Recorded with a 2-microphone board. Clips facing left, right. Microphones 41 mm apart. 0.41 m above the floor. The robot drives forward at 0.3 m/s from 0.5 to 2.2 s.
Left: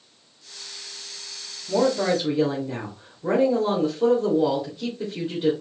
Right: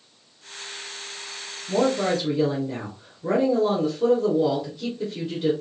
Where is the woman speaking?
10° left (ahead or behind), 1.2 m.